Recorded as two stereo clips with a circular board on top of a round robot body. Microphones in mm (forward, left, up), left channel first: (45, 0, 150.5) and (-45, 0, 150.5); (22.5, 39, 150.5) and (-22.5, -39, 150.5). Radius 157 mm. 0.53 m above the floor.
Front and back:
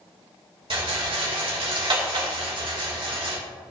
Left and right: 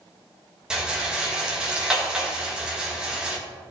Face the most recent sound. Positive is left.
turn(degrees=160)